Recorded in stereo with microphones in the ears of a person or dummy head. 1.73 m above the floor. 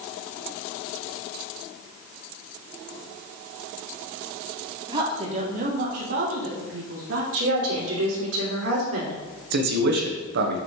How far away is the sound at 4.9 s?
About 1.7 m.